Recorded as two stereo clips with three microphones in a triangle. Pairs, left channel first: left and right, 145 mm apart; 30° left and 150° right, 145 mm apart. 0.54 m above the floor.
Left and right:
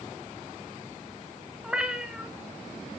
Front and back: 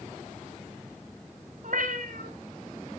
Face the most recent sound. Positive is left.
turn(degrees=-175)